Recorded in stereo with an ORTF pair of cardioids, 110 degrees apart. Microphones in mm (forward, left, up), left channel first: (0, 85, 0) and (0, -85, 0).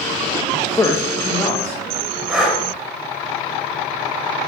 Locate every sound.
0.5 s a man speaking: 15° left, 0.9 m
2.3 s breathing: 5° right, 3 m